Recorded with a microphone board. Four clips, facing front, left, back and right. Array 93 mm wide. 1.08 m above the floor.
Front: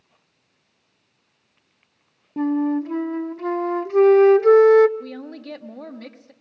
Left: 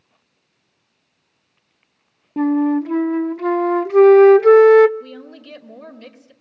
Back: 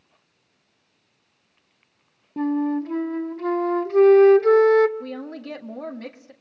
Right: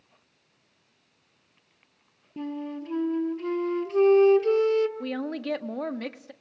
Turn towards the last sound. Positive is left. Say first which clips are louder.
# right 6 dB, back 2 dB
turn(degrees=-100)